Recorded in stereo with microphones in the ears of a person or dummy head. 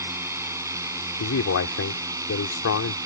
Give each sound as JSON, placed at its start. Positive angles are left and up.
{"t": 0.0, "sound": "a drone", "side_deg": -15}
{"t": 1.2, "sound": "a man speaking", "side_deg": 70}